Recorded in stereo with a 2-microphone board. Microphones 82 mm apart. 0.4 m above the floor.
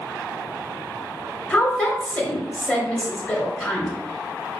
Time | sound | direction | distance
1.5 | a woman speaking | 25° left (ahead or behind) | 1.0 m